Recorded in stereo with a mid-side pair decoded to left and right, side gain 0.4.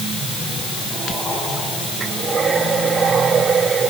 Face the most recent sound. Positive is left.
No sound to turn to.